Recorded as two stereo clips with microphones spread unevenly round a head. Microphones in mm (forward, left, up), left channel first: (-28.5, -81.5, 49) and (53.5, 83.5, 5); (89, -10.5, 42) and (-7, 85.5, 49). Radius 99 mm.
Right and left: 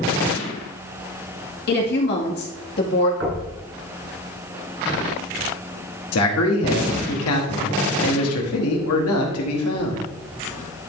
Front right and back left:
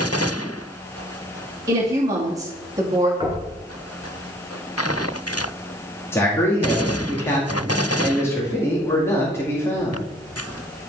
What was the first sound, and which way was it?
A woman speaking, 155° right.